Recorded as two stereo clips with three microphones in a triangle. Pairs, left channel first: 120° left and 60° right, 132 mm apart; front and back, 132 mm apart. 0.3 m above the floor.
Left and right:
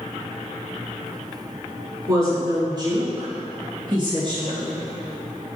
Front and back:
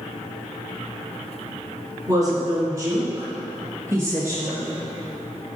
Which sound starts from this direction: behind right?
A woman speaking, at 2.1 s.